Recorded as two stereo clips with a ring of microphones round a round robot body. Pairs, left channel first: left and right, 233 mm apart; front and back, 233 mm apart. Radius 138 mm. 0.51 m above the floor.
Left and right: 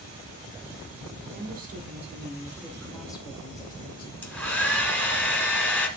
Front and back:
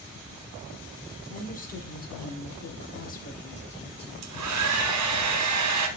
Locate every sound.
1.3 s a woman speaking: 50° right, 1.7 m; by 4.1 s 65° left, 1.6 m
4.2 s a hair dryer: 175° left, 1.7 m